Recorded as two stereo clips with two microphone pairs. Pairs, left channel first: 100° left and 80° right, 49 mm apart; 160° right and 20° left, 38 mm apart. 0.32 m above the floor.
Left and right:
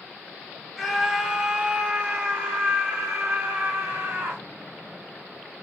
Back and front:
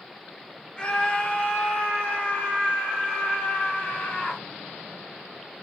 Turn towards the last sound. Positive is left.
turn(degrees=-110)